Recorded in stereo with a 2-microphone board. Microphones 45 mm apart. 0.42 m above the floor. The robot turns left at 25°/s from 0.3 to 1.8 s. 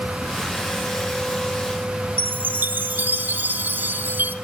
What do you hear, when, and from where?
2.2 s a chime: 40° right (ahead or behind), 0.6 m